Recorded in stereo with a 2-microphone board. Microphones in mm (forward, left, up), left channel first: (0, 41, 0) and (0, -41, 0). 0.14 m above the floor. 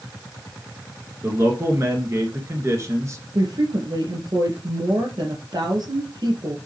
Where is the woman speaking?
55° right (ahead or behind), 3 m.